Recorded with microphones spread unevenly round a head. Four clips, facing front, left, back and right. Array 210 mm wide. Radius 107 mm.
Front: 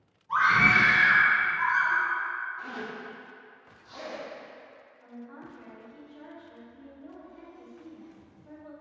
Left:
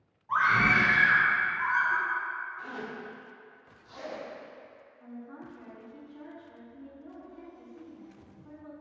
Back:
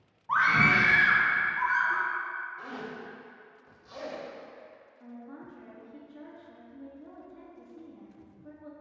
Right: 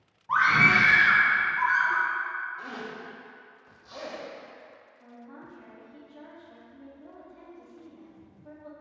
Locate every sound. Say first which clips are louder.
0.3 s a scream: right 2 dB, front 1 dB; 125° right, 1.4 m; by 2.1 s 105° right, 2.5 m
2.6 s a zipper: right 1 dB, front 2 dB; 110° right, 2 m
5.0 s a woman speaking: left 3 dB, even; 165° right, 2.0 m